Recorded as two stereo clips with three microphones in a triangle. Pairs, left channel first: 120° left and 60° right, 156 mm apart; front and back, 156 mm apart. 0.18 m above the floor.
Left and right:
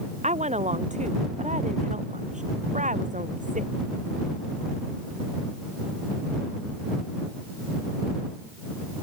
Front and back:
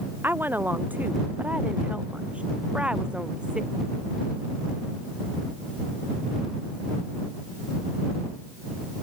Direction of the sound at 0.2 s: 105° right.